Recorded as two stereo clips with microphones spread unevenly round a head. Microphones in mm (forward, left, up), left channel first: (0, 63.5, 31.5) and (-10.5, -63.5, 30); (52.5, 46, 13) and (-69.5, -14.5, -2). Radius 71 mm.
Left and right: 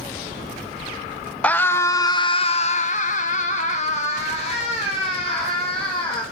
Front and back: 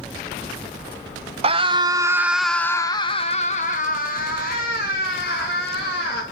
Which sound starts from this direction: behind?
A scream, at 1.4 s.